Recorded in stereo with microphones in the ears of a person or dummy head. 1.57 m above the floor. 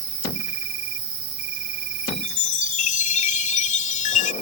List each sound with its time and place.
0.0 s an insect: 60° right (ahead or behind)
2.0 s a chime: 50° left (ahead or behind)